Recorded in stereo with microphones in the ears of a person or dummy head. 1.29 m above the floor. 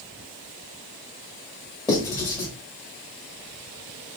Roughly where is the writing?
Left.